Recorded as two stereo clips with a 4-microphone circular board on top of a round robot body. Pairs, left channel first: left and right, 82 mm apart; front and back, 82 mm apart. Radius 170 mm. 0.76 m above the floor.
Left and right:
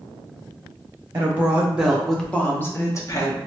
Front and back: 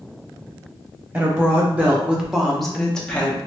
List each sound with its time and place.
1.1 s a woman speaking: 135° right, 1.2 m; by 3.4 s 70° left, 1.3 m